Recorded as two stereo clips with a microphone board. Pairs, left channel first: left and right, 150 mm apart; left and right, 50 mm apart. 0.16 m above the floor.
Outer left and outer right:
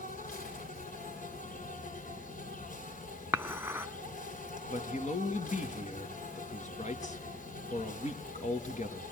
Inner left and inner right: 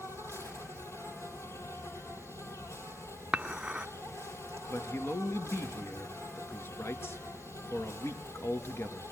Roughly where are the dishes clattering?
Centre.